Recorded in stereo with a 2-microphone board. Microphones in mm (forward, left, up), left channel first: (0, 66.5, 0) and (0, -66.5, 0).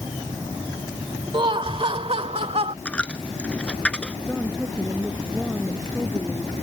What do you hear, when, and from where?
1.3 s laughter: 40° right (ahead or behind); by 2.8 s 50° right (ahead or behind)
2.9 s a dropped coin: 10° left (ahead or behind)
4.2 s a woman speaking: 5° left (ahead or behind)